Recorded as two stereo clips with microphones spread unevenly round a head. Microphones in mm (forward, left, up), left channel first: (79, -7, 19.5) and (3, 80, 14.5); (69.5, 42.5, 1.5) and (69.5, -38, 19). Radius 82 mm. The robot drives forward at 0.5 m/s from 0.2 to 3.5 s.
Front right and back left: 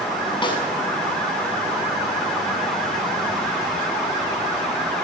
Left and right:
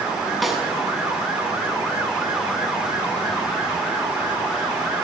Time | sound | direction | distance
0.4 | a snare drum | straight ahead | 7 m